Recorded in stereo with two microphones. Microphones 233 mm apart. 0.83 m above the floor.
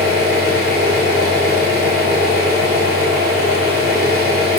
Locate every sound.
0.0 s an engine running: 45° right (ahead or behind), 1.6 m